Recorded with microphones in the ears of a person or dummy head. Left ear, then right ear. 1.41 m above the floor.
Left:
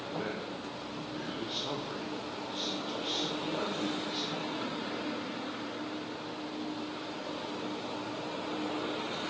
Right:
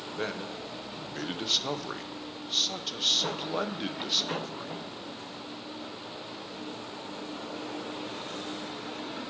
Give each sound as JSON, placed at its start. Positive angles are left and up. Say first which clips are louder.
{"t": 0.2, "sound": "a man speaking", "louder": "right 5 dB", "side_deg": -75, "distance_m": 0.6}